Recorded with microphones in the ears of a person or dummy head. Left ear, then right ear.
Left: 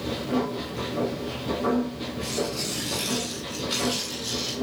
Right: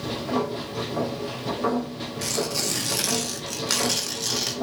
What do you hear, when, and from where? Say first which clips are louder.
0.0 s a machine running: right 1 dB; 40° right (ahead or behind), 2.5 m
2.2 s tearing paper: right 3 dB; 60° right (ahead or behind), 1.4 m